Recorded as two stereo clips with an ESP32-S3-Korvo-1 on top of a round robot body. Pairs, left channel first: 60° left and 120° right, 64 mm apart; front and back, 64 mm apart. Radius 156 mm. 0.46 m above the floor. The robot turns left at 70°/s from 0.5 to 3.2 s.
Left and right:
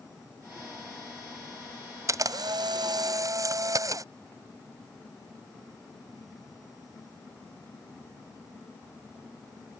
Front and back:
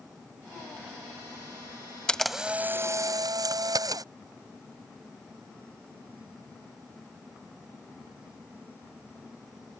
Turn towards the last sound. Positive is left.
turn(degrees=-155)